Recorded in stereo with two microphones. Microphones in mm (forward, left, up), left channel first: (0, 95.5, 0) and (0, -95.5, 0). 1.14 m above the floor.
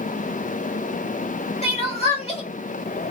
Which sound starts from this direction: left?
Crying, at 1.6 s.